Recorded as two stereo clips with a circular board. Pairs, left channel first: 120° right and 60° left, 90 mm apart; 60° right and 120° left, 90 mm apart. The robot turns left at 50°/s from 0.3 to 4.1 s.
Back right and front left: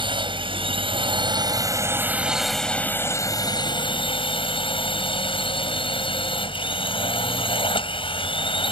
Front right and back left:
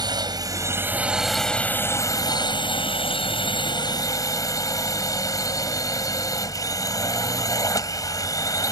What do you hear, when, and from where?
0.0 s a drone: 80° left; by 8.7 s 110° right